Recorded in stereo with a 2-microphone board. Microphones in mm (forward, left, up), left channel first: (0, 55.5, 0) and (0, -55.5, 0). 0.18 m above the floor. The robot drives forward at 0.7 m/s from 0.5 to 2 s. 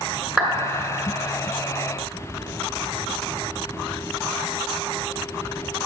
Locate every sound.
0.4 s a clap: 5° right (ahead or behind), 1.7 m